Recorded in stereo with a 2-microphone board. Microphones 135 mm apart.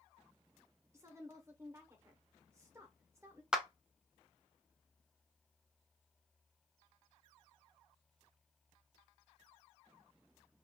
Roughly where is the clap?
Centre.